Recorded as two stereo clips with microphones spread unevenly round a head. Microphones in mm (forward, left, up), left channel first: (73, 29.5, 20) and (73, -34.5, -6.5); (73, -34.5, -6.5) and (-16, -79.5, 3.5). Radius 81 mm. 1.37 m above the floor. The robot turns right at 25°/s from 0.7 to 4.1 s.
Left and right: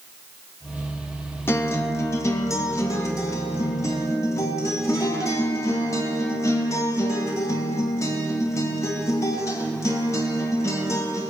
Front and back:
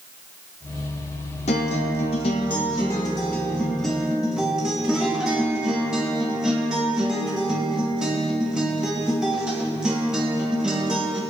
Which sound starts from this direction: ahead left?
A guitar, at 1.5 s.